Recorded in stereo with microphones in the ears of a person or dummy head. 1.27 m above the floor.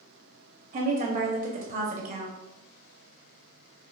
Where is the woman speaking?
40° right (ahead or behind), 0.6 m.